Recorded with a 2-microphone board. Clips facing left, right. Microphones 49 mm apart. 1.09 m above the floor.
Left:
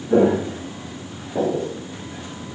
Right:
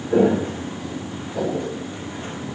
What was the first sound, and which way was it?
Footsteps, 20° left (ahead or behind).